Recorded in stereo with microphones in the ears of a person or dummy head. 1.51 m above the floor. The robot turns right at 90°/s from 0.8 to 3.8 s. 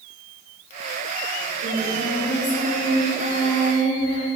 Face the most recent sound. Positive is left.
turn(degrees=150)